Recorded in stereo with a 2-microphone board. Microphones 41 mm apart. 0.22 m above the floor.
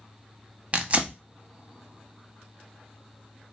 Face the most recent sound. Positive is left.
turn(degrees=-30)  # may be behind; listen again after turning